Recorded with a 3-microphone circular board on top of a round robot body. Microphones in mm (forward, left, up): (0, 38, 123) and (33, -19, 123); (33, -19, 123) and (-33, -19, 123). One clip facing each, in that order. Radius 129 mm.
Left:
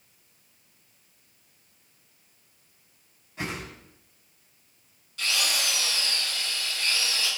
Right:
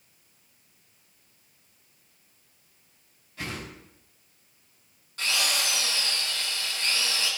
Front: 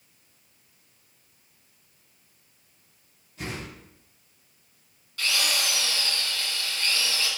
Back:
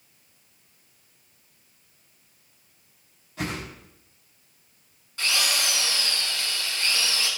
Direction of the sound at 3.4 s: 170° right.